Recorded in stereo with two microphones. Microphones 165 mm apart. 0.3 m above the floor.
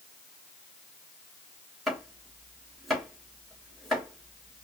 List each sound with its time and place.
1.9 s chopping: centre (ahead or behind), 3 m